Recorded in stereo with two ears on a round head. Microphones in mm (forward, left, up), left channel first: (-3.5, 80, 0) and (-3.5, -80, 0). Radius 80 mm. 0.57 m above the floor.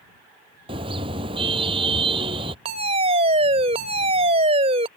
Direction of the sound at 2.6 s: 35° right (ahead or behind).